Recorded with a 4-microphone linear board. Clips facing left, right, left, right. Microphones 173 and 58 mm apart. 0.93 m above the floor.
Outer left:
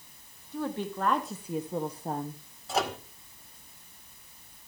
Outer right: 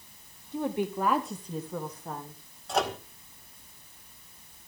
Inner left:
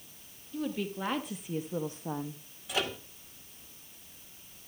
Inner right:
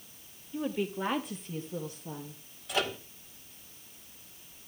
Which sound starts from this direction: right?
A woman speaking, at 0.5 s.